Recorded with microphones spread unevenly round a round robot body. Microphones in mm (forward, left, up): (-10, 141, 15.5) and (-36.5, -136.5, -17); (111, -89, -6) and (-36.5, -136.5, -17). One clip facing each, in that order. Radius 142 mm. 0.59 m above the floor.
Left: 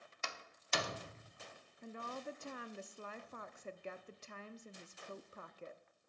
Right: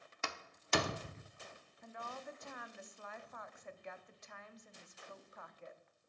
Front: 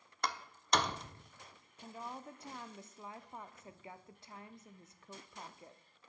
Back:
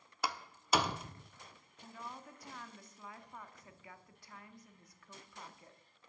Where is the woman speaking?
65° left, 0.7 m.